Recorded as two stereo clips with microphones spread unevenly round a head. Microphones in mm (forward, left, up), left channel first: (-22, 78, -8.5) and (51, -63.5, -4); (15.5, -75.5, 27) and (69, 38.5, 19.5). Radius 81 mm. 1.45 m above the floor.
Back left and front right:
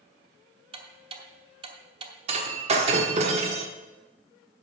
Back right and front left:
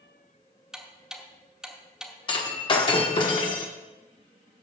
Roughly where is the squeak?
I don't hear a squeak.